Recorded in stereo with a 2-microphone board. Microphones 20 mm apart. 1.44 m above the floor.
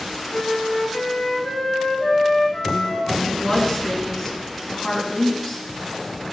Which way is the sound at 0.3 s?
65° left (ahead or behind).